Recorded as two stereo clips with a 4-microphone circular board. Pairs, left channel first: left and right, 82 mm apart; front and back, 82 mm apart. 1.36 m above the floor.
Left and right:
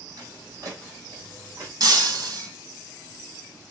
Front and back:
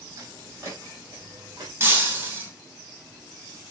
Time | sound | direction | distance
0.2 | footsteps | 130° right | 3.5 m
1.8 | breaking glass | 125° right | 3 m